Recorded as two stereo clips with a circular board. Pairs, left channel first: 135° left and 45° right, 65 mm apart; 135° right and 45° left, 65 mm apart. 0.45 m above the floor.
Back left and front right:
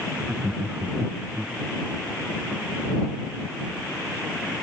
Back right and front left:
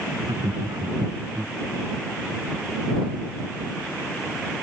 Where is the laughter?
30° left; by 1.6 s 15° left.